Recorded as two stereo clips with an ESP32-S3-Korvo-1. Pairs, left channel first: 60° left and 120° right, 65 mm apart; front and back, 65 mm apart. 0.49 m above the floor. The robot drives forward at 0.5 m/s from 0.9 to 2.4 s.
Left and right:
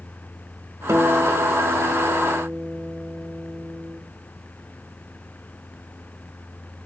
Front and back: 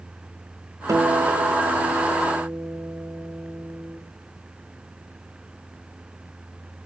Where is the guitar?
155° right, 1.1 m; by 4.0 s 165° right, 1.8 m.